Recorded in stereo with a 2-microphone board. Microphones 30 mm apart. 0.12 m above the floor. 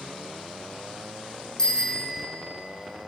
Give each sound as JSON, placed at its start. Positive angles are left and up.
{"t": 1.6, "sound": "a bicycle bell", "side_deg": 25, "distance_m": 4.5}